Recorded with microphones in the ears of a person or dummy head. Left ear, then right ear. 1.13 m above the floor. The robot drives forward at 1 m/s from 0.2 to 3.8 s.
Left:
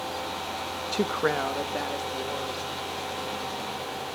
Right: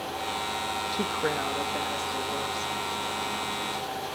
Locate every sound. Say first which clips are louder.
0.9 s a woman speaking: left 5 dB; 40° left (ahead or behind), 0.5 m; by 2.7 s 10° left (ahead or behind), 2 m